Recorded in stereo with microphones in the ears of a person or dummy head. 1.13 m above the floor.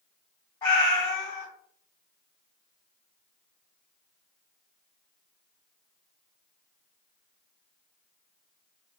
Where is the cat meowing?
20° left (ahead or behind), 1.8 m.